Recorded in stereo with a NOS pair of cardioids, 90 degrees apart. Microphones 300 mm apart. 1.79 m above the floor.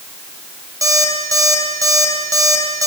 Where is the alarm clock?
10° right, 6 m.